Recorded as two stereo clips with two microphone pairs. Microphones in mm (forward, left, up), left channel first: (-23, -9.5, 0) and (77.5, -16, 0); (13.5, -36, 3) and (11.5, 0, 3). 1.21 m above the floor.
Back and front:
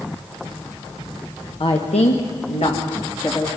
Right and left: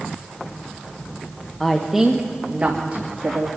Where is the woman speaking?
160° right, 1.1 m; by 3.5 s 130° left, 2 m.